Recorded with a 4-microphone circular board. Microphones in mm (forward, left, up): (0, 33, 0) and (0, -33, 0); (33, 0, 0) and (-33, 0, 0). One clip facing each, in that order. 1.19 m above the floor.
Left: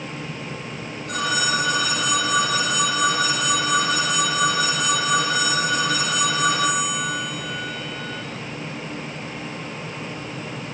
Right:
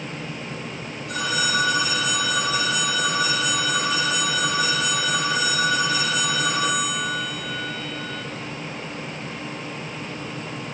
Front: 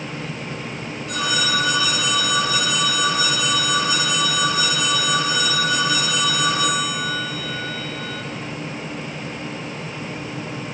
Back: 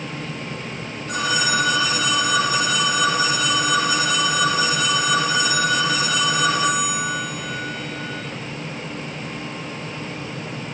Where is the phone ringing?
125° left, 4.5 m.